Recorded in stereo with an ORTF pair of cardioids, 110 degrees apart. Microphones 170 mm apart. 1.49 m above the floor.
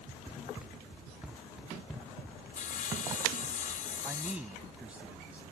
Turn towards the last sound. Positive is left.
turn(degrees=-5)